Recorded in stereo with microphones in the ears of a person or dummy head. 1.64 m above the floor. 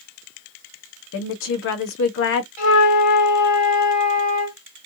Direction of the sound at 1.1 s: 60° left (ahead or behind).